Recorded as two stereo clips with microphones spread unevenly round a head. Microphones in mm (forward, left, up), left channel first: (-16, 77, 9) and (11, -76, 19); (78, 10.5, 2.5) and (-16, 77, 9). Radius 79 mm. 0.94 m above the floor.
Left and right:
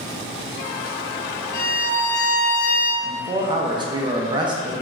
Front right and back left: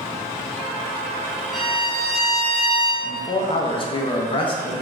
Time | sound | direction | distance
1.5 | a violin | 55° left | 1.0 m
3.0 | a man speaking | 25° right | 0.5 m